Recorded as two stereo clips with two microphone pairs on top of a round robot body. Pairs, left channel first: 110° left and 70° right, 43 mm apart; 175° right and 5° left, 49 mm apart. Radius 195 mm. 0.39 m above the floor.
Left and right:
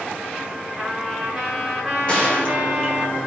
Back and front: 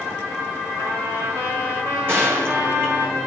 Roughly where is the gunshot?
Ahead left.